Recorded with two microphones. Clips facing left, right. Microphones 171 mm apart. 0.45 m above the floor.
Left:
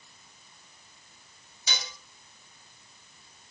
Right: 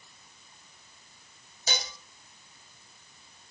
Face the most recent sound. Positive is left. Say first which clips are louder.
# right 4 dB
turn(degrees=-45)  # may be behind; listen again after turning